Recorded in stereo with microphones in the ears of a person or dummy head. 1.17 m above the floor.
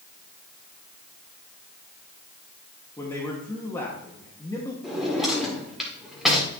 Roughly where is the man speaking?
Centre.